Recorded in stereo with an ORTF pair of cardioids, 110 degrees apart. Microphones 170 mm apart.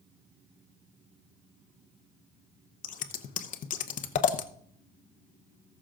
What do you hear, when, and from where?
2.8 s scissors: 55° left, 0.9 m